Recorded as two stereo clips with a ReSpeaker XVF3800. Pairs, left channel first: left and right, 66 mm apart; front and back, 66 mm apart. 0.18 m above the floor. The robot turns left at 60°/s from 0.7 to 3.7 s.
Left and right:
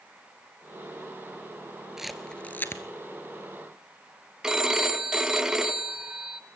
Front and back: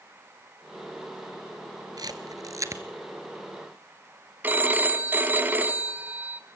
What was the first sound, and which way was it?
A camera shutter, 170° right.